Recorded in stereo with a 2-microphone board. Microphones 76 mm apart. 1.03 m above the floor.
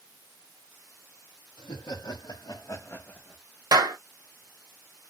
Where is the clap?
65° right (ahead or behind), 0.9 m.